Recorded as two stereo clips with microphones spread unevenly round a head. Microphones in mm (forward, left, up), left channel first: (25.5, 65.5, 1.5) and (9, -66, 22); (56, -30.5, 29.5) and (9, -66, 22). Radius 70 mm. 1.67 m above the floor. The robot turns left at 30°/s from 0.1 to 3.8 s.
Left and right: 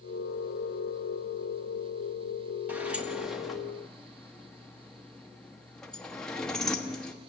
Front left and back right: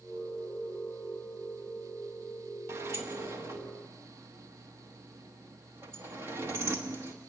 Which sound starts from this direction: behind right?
A sliding door, at 2.7 s.